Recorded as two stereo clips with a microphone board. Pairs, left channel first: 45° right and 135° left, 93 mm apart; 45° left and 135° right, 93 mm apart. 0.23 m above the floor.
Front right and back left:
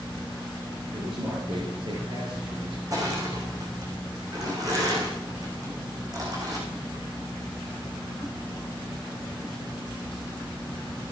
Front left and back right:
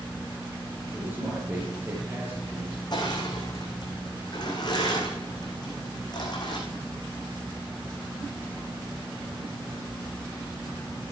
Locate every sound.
0.9 s a man speaking: 155° left, 4 m; by 2.8 s 160° left, 5 m
2.9 s crushing: 85° left, 4.5 m